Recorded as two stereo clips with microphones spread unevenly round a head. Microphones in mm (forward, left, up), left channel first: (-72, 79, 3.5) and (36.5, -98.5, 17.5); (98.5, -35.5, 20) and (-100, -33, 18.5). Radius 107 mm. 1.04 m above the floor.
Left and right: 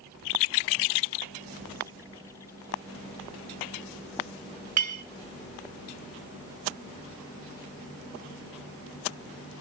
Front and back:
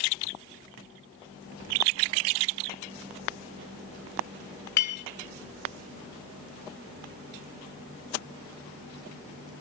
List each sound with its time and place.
4.8 s a clink: 35° right, 1.9 m